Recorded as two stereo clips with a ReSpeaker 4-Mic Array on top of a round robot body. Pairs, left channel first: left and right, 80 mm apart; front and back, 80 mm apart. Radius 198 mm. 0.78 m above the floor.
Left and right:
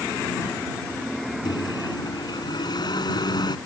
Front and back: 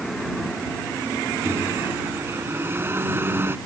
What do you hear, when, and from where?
1.4 s a microwave: 120° left